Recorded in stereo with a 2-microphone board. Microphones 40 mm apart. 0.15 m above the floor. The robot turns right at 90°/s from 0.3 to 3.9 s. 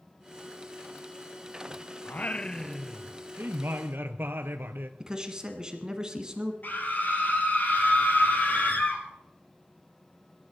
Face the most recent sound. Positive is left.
turn(degrees=55)  # may be behind; listen again after turning